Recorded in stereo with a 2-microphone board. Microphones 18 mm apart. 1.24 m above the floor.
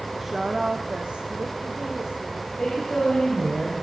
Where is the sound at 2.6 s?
50° left (ahead or behind), 4.5 m.